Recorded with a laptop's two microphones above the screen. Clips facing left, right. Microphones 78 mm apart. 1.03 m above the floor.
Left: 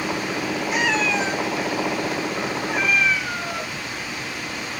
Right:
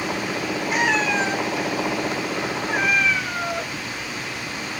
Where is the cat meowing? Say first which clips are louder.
Right 1 dB; 45° right (ahead or behind), 1.5 m.